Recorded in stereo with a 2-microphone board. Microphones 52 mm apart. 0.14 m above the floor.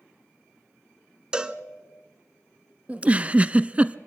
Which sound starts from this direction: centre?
A cowbell, at 1.3 s.